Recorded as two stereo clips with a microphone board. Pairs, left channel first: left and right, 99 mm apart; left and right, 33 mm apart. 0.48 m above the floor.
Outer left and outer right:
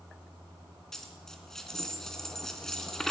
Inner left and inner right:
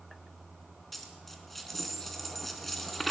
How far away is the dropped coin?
About 2.5 m.